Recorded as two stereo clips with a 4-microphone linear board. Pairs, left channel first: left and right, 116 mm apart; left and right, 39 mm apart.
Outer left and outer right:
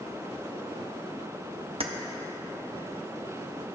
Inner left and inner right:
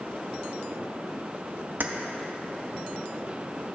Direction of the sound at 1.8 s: 55° right (ahead or behind).